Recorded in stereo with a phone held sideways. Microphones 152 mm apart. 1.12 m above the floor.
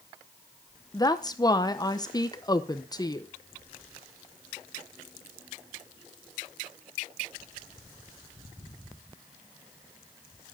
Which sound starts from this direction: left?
A woman speaking, at 0.9 s.